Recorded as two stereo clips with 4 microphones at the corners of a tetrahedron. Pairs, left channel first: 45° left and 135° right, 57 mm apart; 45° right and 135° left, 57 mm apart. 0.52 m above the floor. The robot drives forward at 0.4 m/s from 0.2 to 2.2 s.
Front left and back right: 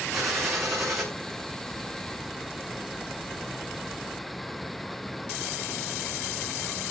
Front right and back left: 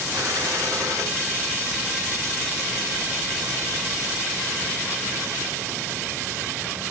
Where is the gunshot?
135° left, 7 m; by 1.1 s 140° left, 7 m.